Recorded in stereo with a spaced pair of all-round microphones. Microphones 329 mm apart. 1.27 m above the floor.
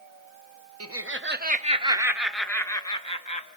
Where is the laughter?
45° right (ahead or behind), 1.3 m; by 3.5 s 20° left (ahead or behind), 1.8 m.